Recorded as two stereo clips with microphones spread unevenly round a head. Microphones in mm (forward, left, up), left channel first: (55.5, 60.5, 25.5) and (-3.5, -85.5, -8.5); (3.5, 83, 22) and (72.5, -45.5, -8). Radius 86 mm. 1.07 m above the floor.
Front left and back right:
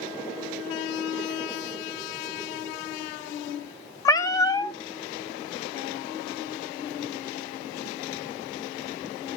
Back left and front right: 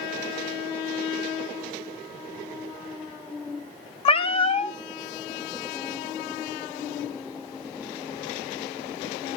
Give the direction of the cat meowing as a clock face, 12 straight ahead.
8 o'clock.